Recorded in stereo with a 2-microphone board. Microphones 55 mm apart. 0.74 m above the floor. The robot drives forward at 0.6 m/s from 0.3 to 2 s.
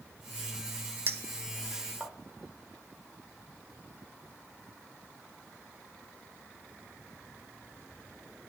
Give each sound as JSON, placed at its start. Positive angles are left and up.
{"t": 1.1, "sound": "a clink", "side_deg": -45, "distance_m": 0.6}